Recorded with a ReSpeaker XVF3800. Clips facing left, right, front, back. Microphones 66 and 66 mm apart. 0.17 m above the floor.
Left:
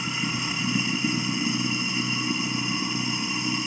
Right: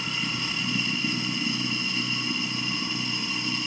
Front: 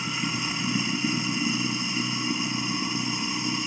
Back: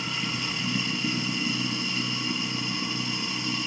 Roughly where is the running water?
Ahead left.